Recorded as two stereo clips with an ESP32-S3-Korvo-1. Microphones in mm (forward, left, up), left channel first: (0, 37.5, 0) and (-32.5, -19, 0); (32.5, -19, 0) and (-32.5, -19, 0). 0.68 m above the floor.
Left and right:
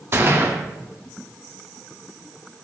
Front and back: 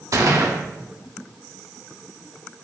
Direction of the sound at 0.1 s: 165° right.